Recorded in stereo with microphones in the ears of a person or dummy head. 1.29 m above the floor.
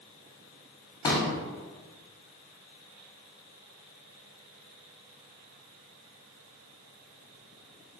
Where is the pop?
15° left (ahead or behind), 0.8 m.